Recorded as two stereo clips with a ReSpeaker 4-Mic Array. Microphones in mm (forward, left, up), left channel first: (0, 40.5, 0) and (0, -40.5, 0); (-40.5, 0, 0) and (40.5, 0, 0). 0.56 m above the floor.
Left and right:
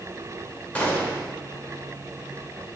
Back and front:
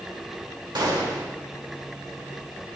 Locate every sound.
0.8 s a gunshot: 20° left, 1.3 m